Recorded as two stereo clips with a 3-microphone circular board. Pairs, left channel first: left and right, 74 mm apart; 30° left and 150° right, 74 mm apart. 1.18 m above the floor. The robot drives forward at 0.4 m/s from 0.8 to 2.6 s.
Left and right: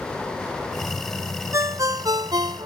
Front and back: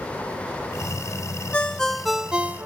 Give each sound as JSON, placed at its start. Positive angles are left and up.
{"t": 1.5, "sound": "a ringtone", "azimuth_deg": -45}